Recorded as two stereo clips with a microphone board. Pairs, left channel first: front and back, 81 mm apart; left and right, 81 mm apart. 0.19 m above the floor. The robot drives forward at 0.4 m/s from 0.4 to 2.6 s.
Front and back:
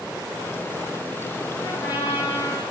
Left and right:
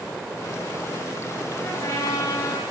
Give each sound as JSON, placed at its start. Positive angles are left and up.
{"t": 1.6, "sound": "a trumpet", "azimuth_deg": 35, "distance_m": 9.0}